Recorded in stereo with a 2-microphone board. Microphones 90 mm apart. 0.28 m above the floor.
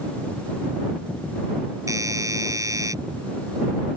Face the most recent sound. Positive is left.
turn(degrees=-35)  # may be behind; listen again after turning